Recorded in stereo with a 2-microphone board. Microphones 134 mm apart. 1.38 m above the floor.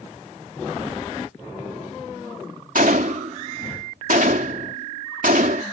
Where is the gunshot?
85° right.